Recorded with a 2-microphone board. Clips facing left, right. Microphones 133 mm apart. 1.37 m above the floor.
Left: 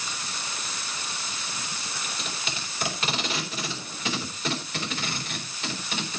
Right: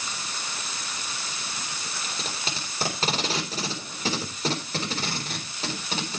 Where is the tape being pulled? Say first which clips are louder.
Right 2 dB; 35° right (ahead or behind), 4 m.